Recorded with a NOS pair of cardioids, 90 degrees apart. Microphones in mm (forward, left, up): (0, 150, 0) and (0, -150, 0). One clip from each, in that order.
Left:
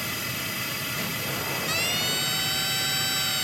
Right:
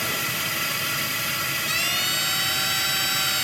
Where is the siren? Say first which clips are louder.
Right 1 dB; 15° right.